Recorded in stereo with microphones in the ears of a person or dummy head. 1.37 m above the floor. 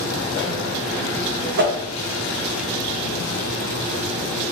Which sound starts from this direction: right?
A whoosh, at 1.6 s.